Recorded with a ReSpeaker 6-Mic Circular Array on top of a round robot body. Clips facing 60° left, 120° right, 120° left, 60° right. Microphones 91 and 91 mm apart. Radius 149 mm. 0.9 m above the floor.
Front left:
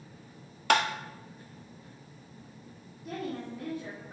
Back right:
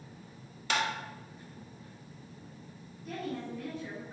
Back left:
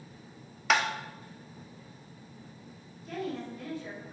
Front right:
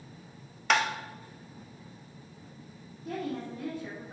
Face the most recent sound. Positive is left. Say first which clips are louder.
# front left 1 dB, front right 1 dB
turn(degrees=-5)